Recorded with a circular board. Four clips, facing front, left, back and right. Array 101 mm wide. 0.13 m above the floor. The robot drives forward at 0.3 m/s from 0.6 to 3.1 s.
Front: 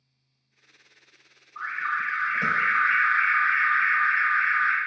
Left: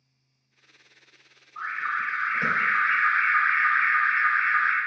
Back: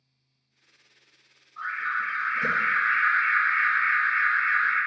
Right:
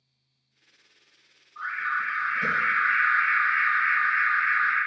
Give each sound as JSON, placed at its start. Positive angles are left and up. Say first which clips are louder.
{"t": 1.6, "sound": "an alarm", "louder": "even, front 1 dB", "azimuth_deg": 45, "distance_m": 1.8}